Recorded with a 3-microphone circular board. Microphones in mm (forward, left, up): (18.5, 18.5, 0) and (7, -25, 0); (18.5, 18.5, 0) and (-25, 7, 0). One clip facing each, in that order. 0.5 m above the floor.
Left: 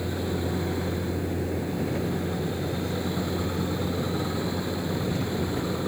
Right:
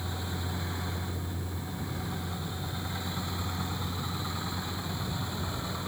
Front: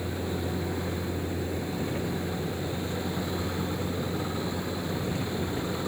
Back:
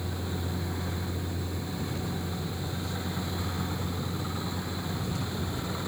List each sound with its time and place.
0.0 s a vehicle: 70° left